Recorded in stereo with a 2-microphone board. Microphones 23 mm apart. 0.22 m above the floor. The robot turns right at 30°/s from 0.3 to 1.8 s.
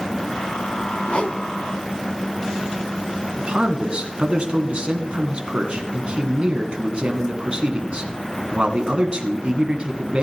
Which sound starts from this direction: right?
A man speaking, at 3.4 s.